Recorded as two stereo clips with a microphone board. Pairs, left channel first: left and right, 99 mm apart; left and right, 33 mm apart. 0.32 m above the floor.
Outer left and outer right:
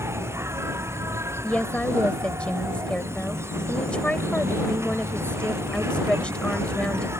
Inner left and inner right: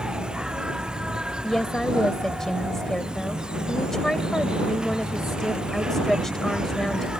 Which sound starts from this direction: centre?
A woman speaking, at 1.4 s.